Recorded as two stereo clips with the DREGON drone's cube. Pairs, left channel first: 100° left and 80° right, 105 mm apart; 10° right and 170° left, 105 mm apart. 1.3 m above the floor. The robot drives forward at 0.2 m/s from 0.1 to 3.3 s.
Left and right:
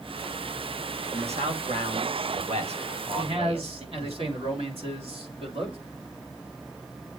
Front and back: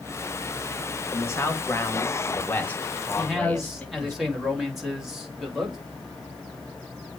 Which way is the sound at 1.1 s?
75° right.